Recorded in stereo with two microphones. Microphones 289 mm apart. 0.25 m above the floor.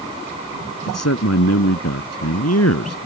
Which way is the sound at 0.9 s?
60° left (ahead or behind).